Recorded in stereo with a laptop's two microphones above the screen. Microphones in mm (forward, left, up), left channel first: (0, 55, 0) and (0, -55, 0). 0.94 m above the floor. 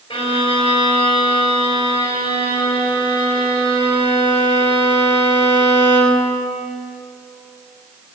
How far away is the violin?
About 5.5 m.